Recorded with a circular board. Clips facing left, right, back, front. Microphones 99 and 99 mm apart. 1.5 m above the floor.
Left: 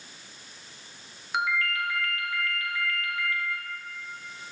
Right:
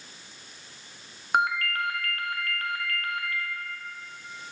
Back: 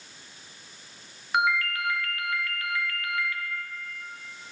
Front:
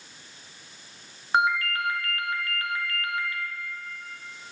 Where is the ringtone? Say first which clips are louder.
Right 3 dB, front 2 dB; 55° right, 0.9 m.